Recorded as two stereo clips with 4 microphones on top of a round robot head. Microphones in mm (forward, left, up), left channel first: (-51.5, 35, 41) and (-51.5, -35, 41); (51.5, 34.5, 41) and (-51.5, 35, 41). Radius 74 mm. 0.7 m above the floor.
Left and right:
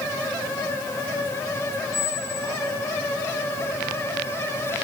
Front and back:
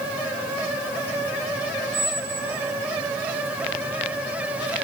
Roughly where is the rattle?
I don't hear a rattle.